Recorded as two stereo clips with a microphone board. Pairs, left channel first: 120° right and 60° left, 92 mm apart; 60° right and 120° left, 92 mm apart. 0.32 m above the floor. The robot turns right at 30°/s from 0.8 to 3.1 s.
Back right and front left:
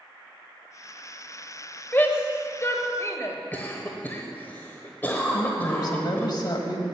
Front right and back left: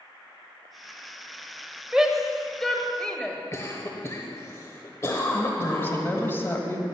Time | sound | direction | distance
1.9 | a shout | 165° right | 1.3 m
3.5 | a cough | 70° right | 1.0 m
5.3 | a woman speaking | 120° right | 1.6 m